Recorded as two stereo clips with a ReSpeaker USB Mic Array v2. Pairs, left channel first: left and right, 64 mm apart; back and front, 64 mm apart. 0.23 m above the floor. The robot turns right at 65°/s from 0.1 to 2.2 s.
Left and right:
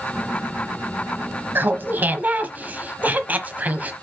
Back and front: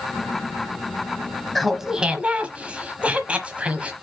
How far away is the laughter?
About 1.1 m.